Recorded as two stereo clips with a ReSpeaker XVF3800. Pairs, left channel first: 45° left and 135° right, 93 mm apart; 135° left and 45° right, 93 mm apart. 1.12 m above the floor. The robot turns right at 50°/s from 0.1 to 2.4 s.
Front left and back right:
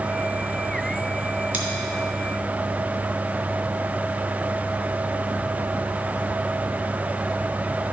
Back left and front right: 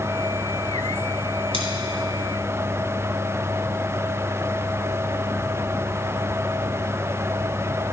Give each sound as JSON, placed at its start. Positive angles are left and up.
{"t": 1.5, "sound": "scissors", "azimuth_deg": -60, "distance_m": 2.5}